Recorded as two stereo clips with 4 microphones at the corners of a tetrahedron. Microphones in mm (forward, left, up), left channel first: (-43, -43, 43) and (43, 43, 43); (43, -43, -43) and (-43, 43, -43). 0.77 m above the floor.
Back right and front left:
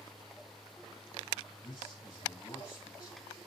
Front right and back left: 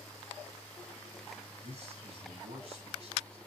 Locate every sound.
1.6 s a man speaking: 175° left, 5.5 m